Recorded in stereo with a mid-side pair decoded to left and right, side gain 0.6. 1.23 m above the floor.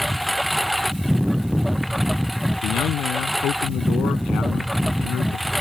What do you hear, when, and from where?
0.0 s a lawn mower: straight ahead
2.6 s a man speaking: 60° left